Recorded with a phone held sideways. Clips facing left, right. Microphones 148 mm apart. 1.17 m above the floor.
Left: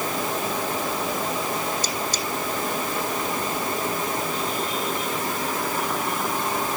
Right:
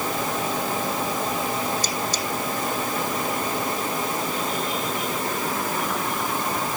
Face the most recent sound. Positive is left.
No sound to turn to.